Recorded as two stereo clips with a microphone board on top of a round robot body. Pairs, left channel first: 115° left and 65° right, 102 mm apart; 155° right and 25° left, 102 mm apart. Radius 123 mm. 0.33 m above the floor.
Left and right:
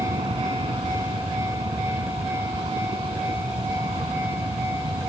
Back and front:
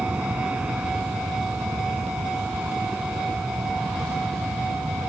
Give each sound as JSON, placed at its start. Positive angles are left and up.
{"t": 0.0, "sound": "an aircraft", "azimuth_deg": -55}